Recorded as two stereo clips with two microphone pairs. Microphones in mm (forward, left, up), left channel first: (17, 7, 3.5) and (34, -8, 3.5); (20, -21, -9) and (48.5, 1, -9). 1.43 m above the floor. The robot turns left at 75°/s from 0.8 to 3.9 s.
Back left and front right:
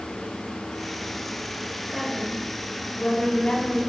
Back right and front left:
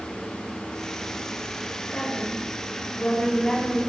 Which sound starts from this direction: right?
A woman speaking, at 1.9 s.